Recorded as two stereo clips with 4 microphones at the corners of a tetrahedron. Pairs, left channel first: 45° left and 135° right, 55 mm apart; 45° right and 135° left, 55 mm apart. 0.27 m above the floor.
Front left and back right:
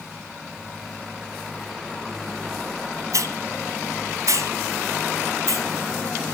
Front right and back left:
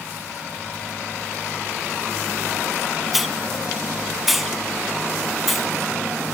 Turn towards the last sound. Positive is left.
turn(degrees=-135)